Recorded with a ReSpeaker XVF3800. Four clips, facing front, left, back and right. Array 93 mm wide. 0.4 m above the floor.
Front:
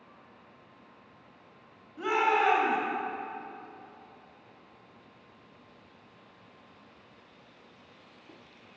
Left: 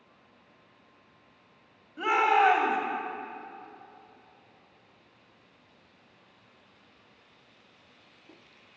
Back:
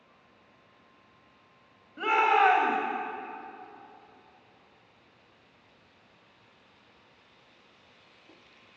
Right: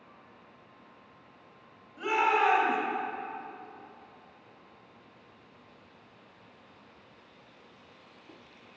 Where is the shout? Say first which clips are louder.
Left 3 dB, back 3 dB; 150° left, 1.8 m.